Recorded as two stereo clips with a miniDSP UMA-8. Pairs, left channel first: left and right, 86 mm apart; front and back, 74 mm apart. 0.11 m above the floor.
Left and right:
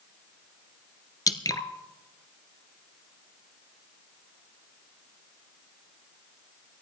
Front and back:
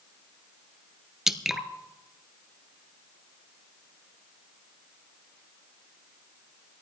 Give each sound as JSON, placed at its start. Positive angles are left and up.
{"t": 1.3, "sound": "dripping", "azimuth_deg": 95, "distance_m": 1.0}